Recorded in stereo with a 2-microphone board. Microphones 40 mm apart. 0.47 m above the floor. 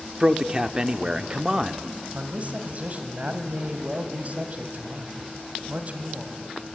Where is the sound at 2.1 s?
40° right (ahead or behind), 2.5 m.